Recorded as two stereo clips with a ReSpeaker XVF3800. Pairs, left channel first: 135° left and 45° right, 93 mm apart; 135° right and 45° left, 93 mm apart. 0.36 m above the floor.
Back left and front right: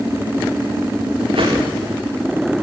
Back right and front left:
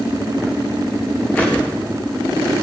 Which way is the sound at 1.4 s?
65° right.